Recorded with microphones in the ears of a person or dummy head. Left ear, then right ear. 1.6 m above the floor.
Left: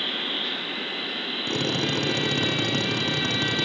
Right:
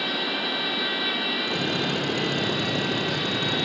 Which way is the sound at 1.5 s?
65° left (ahead or behind).